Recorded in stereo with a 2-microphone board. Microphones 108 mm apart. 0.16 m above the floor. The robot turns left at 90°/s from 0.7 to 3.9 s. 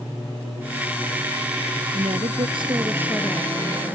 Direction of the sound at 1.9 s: 65° right.